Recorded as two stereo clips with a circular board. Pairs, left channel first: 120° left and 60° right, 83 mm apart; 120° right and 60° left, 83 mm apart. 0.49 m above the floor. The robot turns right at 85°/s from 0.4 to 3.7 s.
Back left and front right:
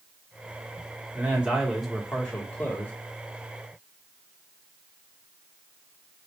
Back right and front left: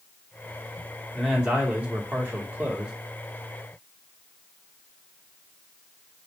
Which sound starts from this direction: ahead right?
A man speaking, at 1.1 s.